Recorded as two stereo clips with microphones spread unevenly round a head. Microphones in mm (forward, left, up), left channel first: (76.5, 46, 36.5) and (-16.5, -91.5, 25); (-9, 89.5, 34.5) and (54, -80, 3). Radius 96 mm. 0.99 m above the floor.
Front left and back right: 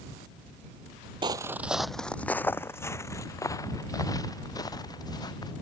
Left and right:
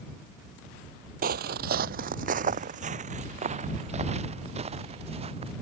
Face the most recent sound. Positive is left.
turn(degrees=-10)